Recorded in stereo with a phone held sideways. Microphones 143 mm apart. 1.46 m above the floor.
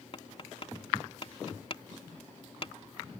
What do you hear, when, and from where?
0.1 s tapping: 45° left (ahead or behind)